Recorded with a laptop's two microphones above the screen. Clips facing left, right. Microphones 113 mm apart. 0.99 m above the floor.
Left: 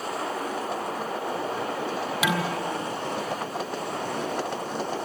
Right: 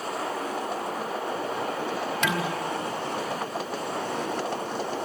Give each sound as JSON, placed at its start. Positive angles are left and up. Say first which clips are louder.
{"t": 2.2, "sound": "dishes clattering", "louder": "left 2 dB", "side_deg": 5, "distance_m": 2.5}